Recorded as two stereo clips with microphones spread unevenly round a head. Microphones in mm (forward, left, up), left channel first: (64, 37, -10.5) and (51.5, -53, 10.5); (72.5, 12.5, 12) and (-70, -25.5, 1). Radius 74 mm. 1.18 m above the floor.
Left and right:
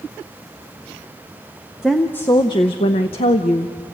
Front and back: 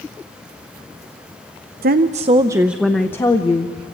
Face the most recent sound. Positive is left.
turn(degrees=75)